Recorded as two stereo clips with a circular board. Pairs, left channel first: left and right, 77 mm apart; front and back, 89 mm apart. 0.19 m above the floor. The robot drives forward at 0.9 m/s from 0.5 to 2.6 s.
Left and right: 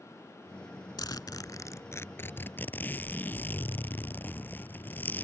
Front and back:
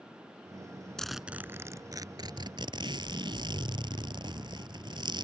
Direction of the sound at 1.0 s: 80° left.